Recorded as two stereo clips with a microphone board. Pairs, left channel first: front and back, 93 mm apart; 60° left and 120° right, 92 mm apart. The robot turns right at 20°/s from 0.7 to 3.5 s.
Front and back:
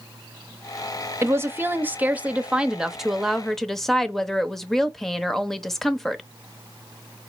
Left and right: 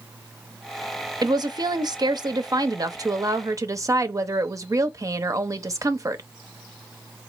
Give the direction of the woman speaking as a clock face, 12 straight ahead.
4 o'clock.